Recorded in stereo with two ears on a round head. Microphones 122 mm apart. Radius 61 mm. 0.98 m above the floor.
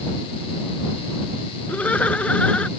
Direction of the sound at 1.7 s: 10° left (ahead or behind).